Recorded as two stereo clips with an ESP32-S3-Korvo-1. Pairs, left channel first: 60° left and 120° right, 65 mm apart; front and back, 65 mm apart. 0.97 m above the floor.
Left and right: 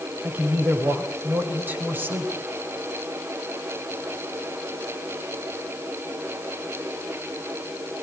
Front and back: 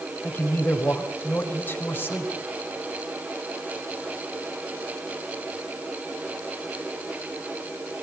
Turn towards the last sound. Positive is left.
turn(degrees=-60)